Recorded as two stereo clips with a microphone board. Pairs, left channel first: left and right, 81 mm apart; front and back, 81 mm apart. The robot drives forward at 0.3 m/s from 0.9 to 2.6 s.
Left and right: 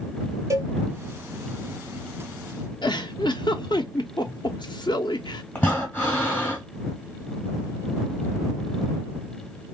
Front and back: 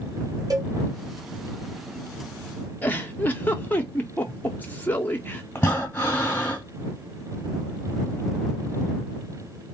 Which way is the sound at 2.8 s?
70° left.